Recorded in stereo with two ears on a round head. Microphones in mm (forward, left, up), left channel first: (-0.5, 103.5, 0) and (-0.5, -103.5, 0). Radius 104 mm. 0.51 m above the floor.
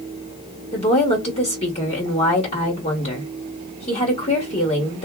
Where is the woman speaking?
30° left (ahead or behind), 1.1 m.